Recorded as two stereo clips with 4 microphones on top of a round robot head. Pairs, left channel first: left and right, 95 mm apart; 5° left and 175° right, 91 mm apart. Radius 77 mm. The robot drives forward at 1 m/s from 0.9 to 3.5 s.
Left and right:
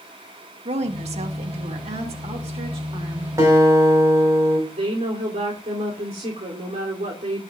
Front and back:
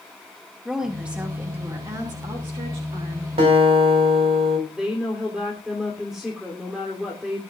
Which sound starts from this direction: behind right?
A guitar, at 3.4 s.